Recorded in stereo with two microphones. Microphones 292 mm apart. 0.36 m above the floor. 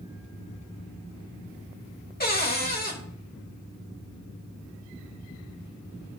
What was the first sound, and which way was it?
A cupboard door, 30° left (ahead or behind).